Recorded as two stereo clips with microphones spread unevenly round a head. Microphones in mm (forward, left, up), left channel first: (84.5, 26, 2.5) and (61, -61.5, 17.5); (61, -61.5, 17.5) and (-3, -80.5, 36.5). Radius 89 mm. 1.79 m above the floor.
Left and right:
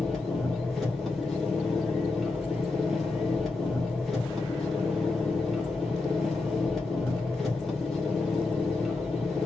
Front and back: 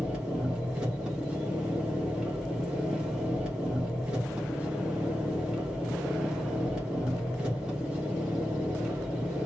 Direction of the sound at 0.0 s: Straight behind.